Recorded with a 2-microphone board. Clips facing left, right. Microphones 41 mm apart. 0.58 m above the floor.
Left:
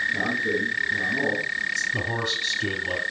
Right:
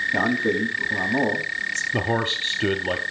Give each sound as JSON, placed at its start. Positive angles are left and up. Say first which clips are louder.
{"t": 0.1, "sound": "a man speaking", "louder": "right 3 dB", "side_deg": -65, "distance_m": 3.5}
{"t": 1.9, "sound": "a man speaking", "louder": "right 3 dB", "side_deg": -40, "distance_m": 1.2}